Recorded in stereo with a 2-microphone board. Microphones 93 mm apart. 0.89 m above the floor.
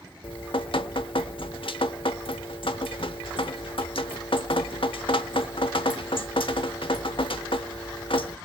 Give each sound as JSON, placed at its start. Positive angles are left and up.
{"t": 0.2, "sound": "dripping", "side_deg": 70, "distance_m": 1.0}